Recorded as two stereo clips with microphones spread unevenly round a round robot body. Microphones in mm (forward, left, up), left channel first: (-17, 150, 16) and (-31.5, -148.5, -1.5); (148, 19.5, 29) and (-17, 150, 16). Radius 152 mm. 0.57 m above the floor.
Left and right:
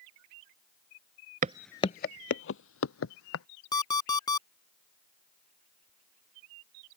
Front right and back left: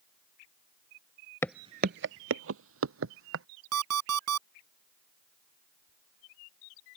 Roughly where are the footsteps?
Right.